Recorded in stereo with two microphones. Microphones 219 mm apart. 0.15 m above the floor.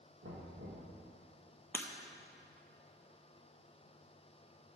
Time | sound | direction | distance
0.2 | knocking | 75° right (ahead or behind) | 2.5 m
1.7 | breaking glass | 10° left (ahead or behind) | 0.7 m